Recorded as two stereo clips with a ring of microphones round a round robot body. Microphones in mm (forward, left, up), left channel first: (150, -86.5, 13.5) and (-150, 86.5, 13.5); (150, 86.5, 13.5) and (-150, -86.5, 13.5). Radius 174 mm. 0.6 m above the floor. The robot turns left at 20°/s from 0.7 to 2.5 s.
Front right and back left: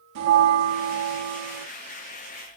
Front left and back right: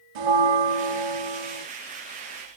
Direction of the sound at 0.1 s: 160° right.